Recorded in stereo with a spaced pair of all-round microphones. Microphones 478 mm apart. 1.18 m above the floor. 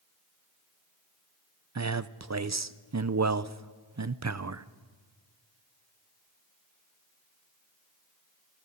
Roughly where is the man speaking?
Right.